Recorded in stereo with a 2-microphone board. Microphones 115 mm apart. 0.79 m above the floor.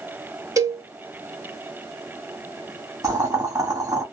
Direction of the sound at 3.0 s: 30° right (ahead or behind).